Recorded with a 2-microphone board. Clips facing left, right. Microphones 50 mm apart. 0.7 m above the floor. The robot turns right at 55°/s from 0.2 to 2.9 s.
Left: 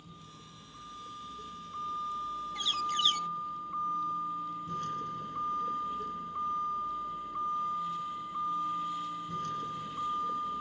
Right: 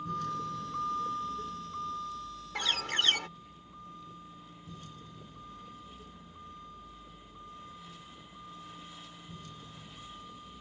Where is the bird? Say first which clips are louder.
Right 1 dB; 80° right; by 3.3 s 75° right (ahead or behind).